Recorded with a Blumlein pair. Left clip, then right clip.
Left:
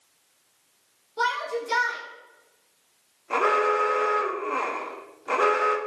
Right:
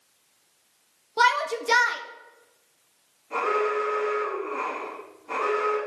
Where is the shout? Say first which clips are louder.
Right 5 dB; 30° right, 1.1 m.